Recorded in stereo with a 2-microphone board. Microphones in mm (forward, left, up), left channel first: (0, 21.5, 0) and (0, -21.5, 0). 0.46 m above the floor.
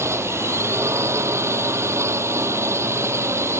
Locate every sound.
0.0 s a drone: 85° right